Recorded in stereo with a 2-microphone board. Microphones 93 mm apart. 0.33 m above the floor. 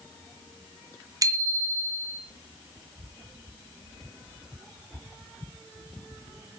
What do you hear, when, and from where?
1.2 s a bicycle bell: 40° right (ahead or behind), 2 m